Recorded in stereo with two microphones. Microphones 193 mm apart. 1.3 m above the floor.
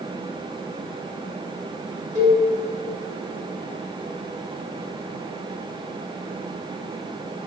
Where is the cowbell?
15° right (ahead or behind), 1.6 m.